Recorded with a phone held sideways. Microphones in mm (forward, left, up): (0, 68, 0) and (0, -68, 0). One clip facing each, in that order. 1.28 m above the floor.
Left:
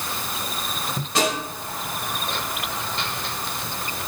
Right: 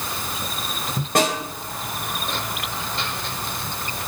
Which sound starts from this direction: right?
A snare drum, at 1.1 s.